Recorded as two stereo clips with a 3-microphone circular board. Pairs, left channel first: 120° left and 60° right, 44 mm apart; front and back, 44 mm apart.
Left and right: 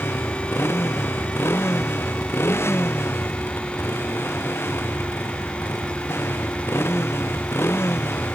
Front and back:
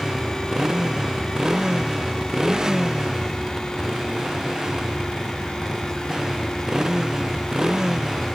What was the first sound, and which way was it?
A motorcycle, 105° left.